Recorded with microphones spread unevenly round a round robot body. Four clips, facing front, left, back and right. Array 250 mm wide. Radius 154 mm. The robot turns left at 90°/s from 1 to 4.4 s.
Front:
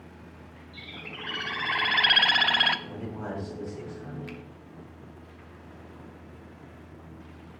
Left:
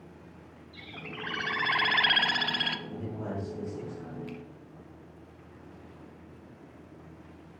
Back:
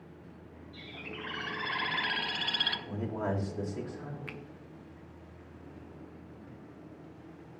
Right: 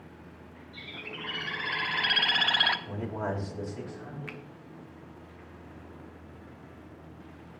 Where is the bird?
120° left, 0.9 m; by 2.8 s 40° right, 0.9 m.